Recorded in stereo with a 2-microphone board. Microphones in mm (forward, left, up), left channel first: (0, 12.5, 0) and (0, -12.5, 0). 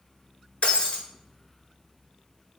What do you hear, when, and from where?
0.6 s breaking glass: 55° left (ahead or behind), 0.7 m